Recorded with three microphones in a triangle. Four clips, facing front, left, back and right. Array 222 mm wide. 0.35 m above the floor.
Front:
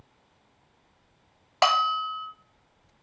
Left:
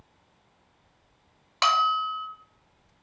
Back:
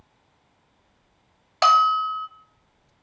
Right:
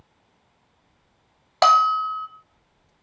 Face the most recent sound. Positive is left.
turn(degrees=-65)